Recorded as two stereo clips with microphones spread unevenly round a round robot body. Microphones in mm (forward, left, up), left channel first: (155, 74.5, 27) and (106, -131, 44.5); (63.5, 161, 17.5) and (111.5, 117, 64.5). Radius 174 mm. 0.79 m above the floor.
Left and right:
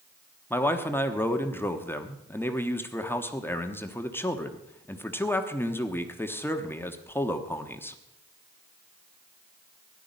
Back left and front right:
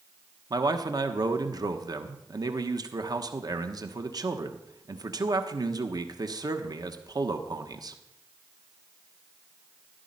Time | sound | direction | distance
0.5 | a man speaking | straight ahead | 1.2 m